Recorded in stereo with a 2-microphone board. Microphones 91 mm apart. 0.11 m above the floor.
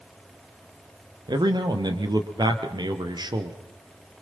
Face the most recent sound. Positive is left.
turn(degrees=-50)  # may be behind; listen again after turning